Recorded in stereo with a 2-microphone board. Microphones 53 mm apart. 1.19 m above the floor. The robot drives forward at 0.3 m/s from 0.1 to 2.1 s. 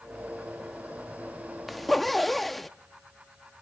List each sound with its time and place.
1.7 s a zipper: centre (ahead or behind), 0.7 m